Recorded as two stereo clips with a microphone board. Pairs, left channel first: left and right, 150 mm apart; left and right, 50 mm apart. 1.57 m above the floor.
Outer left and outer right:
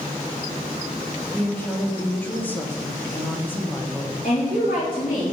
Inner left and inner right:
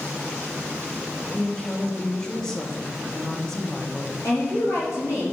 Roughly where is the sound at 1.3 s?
Centre.